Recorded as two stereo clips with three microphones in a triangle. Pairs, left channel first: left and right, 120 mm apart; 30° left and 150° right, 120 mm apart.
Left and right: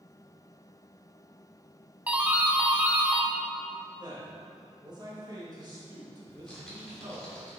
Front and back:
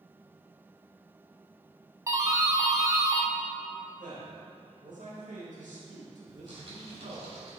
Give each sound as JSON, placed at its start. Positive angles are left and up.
{"t": 2.1, "sound": "a doorbell", "azimuth_deg": -150, "distance_m": 0.8}
{"t": 4.0, "sound": "a man speaking", "azimuth_deg": -145, "distance_m": 2.5}
{"t": 6.3, "sound": "typing on a keyboard", "azimuth_deg": 175, "distance_m": 3.5}